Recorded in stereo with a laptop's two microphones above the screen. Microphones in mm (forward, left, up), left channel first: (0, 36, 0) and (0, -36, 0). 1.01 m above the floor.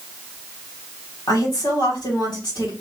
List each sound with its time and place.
1.3 s a woman speaking: 75° left (ahead or behind), 2.5 m